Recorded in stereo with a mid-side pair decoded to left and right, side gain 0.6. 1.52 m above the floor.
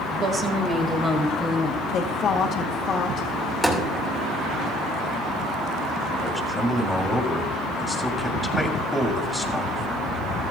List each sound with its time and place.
0.2 s a woman speaking: 40° right, 1.9 m; by 1.8 s 5° right, 2 m
1.9 s a woman speaking: 45° left, 1.7 m
3.6 s a thud: 10° right, 2.5 m
6.2 s a man speaking: straight ahead, 2.5 m